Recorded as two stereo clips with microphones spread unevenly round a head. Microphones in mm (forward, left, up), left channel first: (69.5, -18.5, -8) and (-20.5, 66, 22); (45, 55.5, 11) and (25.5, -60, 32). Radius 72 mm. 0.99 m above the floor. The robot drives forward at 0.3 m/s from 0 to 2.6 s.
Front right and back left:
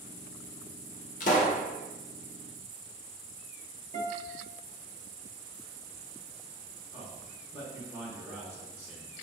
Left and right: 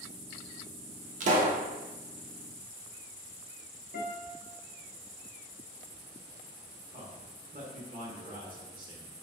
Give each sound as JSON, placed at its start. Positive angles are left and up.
{"t": 1.2, "sound": "a pop", "azimuth_deg": -75, "distance_m": 0.7}
{"t": 3.9, "sound": "a guitar", "azimuth_deg": 105, "distance_m": 1.0}
{"t": 6.9, "sound": "a man speaking", "azimuth_deg": -140, "distance_m": 1.1}